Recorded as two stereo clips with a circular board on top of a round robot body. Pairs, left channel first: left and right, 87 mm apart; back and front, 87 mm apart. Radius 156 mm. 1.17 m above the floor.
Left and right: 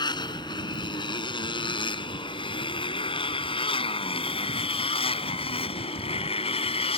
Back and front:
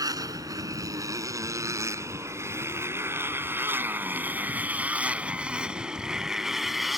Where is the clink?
I don't hear a clink.